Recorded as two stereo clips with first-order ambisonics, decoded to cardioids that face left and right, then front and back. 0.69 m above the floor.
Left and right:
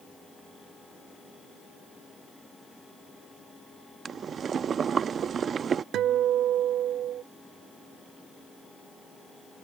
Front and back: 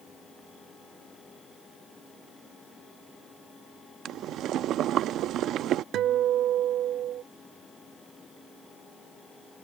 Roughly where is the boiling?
Behind right.